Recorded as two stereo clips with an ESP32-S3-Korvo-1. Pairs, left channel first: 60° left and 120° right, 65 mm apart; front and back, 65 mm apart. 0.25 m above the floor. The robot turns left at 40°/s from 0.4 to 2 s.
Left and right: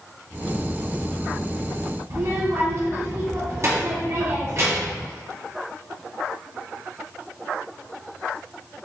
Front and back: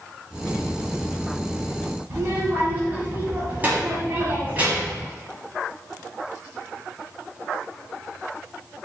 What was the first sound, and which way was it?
A child speaking, 125° right.